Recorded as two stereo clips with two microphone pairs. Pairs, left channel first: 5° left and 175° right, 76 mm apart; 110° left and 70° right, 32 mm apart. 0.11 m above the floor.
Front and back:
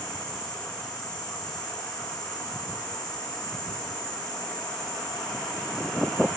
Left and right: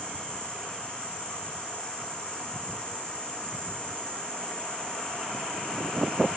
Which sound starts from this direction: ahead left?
An insect, at 0.0 s.